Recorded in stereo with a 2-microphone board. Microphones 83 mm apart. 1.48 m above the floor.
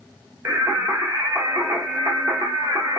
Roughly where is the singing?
Right.